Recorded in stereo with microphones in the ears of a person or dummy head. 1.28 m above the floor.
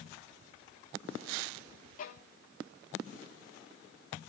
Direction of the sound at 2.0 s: 40° left (ahead or behind).